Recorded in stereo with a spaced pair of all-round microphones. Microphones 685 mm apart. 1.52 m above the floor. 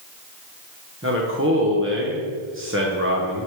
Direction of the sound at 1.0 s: 20° right (ahead or behind).